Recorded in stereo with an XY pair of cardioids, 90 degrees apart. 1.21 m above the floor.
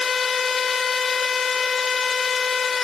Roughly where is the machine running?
Ahead left.